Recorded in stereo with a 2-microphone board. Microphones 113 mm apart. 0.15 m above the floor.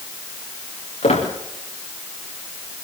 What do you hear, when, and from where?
1.0 s a squeak: 80° left, 5 m